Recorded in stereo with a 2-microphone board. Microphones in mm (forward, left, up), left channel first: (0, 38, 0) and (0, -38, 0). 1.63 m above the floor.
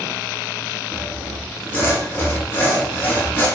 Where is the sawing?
25° left (ahead or behind), 0.8 m.